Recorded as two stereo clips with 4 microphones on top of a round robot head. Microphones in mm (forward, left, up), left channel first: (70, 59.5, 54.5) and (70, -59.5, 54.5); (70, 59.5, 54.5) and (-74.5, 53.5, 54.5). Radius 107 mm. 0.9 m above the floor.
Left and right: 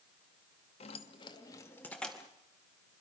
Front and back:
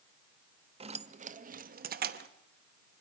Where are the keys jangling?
135° left, 1.0 m; by 2.3 s straight behind, 1.0 m.